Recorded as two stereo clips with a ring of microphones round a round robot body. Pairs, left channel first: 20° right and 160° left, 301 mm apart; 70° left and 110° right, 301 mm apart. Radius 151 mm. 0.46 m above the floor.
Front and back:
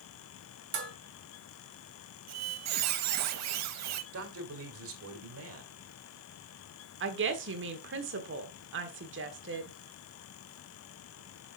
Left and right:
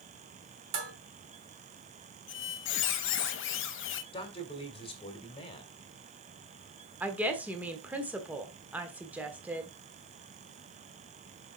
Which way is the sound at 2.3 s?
120° left.